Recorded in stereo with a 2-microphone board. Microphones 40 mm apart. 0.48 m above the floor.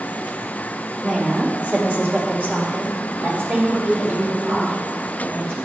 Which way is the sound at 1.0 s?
20° right (ahead or behind).